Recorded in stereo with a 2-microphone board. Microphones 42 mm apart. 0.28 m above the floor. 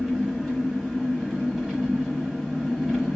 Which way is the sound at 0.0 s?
15° right (ahead or behind).